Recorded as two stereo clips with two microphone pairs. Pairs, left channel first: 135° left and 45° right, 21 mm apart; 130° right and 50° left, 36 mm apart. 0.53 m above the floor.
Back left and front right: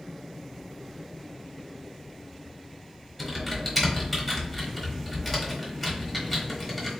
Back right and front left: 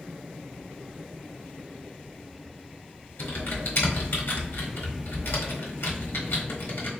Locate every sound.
3.2 s typing on a keyboard: 135° right, 1.2 m